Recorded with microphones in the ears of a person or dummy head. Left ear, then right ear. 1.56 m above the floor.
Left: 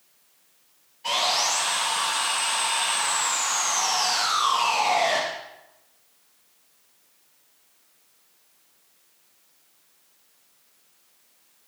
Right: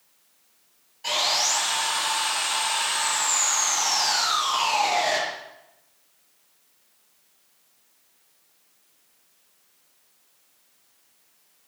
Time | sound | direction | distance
1.0 | sawing | 40° right (ahead or behind) | 9 m